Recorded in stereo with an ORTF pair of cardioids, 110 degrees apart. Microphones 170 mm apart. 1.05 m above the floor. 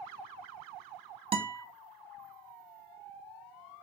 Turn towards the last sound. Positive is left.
turn(degrees=-35)